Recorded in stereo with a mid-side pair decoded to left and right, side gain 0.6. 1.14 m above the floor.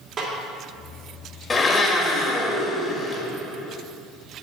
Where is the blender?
30° left, 1.8 m.